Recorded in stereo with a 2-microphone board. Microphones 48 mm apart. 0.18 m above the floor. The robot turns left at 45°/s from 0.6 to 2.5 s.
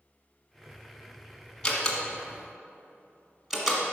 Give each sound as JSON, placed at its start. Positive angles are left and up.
{"t": 1.6, "sound": "a door slam", "side_deg": 15, "distance_m": 1.4}